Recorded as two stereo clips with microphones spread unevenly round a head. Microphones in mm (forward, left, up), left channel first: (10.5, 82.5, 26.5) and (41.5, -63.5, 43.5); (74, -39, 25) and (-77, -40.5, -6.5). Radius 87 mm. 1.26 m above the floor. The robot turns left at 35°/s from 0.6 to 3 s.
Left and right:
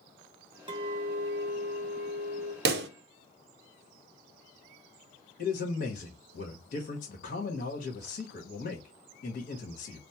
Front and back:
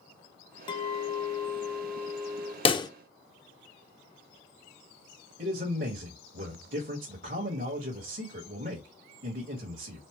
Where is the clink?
35° right, 0.8 m; by 2.5 s 100° right, 0.8 m.